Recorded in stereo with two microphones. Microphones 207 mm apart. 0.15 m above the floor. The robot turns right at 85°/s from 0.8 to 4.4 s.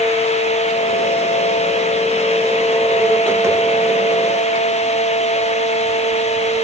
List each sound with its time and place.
Only background noise.